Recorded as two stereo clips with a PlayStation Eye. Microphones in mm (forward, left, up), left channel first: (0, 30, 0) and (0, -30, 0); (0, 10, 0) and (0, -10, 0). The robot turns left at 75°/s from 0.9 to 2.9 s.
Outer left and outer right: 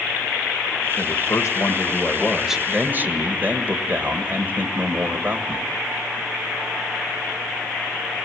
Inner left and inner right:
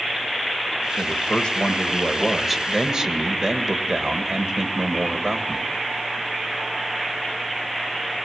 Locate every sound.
1.0 s a man speaking: 110° left, 2 m; by 5.7 s 35° right, 2 m